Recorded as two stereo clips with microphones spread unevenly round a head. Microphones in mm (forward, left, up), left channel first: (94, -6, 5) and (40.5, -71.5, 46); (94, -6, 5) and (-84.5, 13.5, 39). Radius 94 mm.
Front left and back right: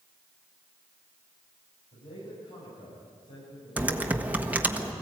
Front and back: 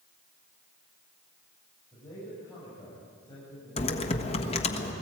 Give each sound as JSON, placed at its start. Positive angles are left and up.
{"t": 1.9, "sound": "a man speaking", "azimuth_deg": 70, "distance_m": 7.0}
{"t": 3.8, "sound": "typing on a keyboard", "azimuth_deg": -65, "distance_m": 1.3}